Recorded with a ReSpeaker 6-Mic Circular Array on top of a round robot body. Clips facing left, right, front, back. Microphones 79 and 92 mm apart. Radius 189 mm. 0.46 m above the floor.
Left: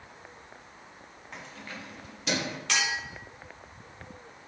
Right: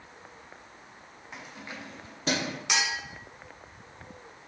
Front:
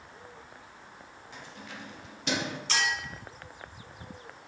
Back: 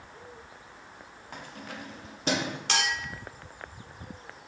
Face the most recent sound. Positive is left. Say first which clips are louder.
# even, even
turn(degrees=-160)